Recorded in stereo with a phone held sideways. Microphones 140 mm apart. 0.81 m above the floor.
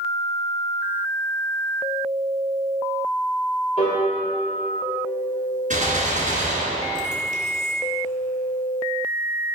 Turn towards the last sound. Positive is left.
turn(degrees=-70)  # may be behind; listen again after turning